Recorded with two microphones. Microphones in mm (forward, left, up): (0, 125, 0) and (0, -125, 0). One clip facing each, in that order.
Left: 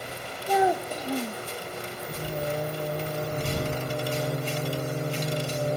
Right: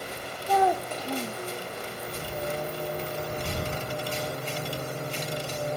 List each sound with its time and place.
0.5 s a child speaking: 15° left (ahead or behind)
2.1 s singing: 25° left (ahead or behind)